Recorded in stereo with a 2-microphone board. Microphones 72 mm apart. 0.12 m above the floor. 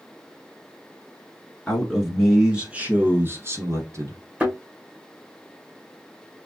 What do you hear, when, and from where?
1.7 s a man speaking: 10° left (ahead or behind), 1.1 m; by 4.2 s 45° right (ahead or behind), 1.4 m
4.4 s a thud: 20° right (ahead or behind), 1.8 m